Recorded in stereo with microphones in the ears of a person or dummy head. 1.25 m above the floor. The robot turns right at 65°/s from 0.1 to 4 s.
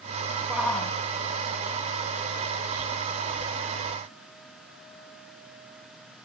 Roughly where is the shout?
Centre.